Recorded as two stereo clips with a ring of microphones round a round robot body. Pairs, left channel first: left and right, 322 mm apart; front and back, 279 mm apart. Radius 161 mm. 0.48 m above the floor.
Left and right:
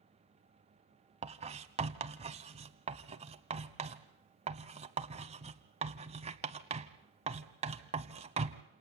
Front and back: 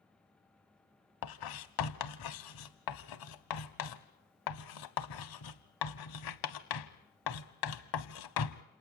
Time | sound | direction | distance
1.2 | writing | 20° right | 1.0 m